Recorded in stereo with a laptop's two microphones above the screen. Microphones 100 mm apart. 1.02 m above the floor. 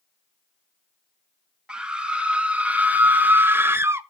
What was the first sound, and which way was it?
A scream, 10° right (ahead or behind).